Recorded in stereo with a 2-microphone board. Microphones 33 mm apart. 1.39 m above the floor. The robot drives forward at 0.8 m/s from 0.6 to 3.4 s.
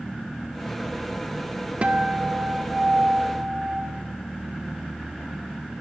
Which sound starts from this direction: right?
A guitar, at 1.8 s.